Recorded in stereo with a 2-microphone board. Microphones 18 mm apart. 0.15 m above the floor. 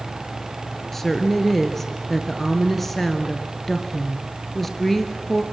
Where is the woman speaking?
10° left (ahead or behind), 2 m.